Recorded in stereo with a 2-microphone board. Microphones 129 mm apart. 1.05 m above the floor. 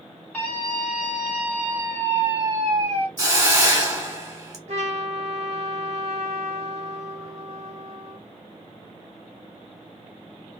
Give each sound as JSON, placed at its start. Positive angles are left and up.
{"t": 0.3, "sound": "a scream", "side_deg": 10, "distance_m": 1.5}
{"t": 3.2, "sound": "a hiss", "side_deg": -30, "distance_m": 1.1}
{"t": 4.7, "sound": "a trumpet", "side_deg": -55, "distance_m": 0.9}